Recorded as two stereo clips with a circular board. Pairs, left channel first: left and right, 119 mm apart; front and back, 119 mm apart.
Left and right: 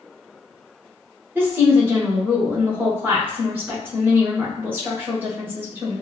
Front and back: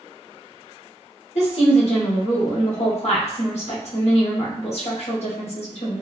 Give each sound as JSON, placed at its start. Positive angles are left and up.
{"t": 1.4, "sound": "a woman speaking", "azimuth_deg": -15, "distance_m": 1.1}